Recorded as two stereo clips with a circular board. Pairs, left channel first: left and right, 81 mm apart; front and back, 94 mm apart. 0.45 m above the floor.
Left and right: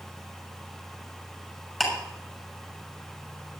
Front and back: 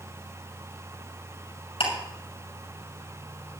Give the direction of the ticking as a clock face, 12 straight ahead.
12 o'clock.